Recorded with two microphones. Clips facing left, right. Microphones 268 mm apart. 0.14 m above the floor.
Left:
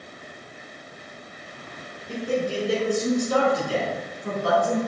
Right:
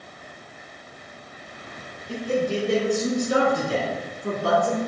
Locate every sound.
2.1 s a man speaking: 20° left (ahead or behind), 1.5 m; by 4.8 s 40° right (ahead or behind), 1.9 m